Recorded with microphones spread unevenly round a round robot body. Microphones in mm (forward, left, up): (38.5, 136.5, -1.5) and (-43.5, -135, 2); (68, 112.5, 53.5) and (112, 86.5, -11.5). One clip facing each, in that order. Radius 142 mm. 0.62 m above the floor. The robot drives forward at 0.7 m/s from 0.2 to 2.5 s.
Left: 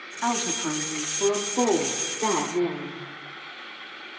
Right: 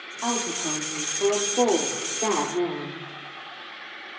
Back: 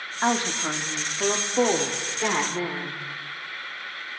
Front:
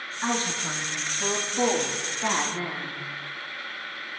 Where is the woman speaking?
80° left, 1.3 m; by 3.0 s 150° left, 2.0 m.